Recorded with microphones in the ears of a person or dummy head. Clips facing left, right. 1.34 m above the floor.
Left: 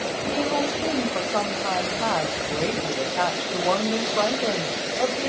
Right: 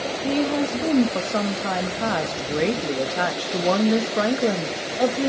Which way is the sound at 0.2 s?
30° right (ahead or behind).